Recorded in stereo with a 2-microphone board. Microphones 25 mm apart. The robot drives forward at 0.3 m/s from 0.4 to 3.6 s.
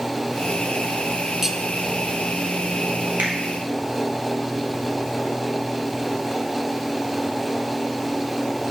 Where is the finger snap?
75° right (ahead or behind), 1.9 m.